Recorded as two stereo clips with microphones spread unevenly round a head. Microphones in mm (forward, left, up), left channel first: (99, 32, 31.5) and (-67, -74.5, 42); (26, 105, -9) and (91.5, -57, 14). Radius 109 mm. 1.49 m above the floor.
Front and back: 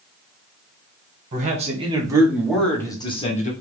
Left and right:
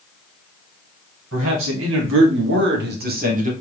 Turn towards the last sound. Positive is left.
turn(degrees=-20)